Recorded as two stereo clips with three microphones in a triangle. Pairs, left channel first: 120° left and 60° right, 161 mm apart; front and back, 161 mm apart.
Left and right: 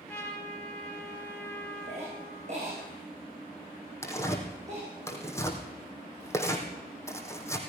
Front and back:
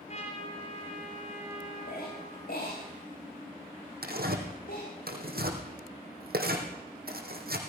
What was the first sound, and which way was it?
A trumpet, 40° left.